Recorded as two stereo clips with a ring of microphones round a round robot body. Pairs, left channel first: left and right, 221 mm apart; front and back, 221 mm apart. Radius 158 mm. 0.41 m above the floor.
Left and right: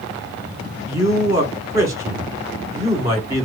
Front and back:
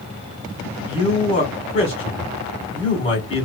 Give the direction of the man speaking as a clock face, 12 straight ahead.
1 o'clock.